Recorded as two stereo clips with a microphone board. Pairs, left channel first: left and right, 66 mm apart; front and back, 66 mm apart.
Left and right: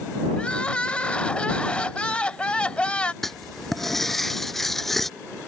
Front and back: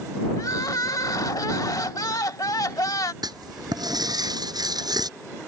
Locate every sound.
0.4 s crying: 20° left
3.2 s writing: 175° left